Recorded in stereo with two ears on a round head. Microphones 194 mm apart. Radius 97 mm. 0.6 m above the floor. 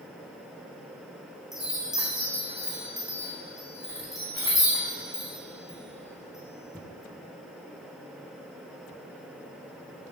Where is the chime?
Centre (ahead or behind), 4 m.